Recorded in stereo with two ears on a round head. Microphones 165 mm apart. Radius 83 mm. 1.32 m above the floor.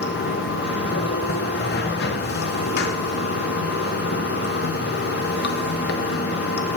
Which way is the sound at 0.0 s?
55° left (ahead or behind).